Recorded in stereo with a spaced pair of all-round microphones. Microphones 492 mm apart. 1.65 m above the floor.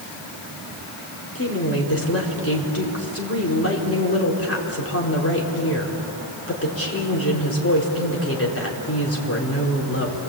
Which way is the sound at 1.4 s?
30° left (ahead or behind).